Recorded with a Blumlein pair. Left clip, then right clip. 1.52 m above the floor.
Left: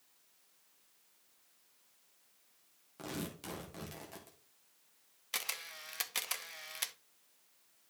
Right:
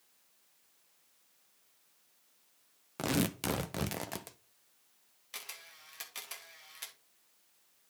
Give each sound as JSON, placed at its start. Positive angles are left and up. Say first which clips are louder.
{"t": 3.0, "sound": "tearing paper", "louder": "right 10 dB", "azimuth_deg": -35, "distance_m": 0.7}
{"t": 5.3, "sound": "a camera shutter", "louder": "left 7 dB", "azimuth_deg": 65, "distance_m": 0.8}